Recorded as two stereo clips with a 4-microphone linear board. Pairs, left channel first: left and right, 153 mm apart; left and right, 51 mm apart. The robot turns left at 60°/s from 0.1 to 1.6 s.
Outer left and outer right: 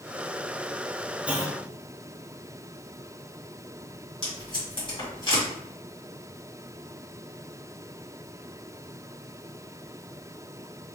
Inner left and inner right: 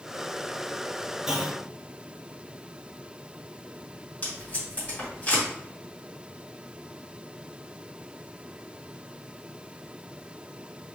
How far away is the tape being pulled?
About 2.0 m.